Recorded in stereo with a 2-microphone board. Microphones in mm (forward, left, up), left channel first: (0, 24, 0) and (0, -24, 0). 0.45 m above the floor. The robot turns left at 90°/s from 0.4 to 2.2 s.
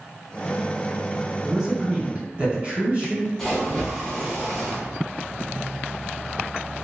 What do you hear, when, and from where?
1.4 s a man speaking: 5° right, 1.4 m; by 3.3 s 70° right, 1.4 m
3.4 s a splash: 10° left (ahead or behind), 1.1 m